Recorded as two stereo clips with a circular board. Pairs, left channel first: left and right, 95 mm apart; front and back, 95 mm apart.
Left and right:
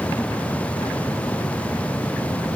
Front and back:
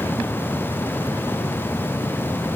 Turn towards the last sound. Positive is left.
No sound to turn to.